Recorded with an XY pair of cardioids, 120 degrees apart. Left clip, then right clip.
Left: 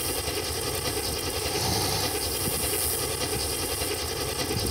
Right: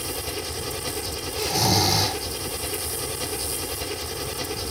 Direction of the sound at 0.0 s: 5° left.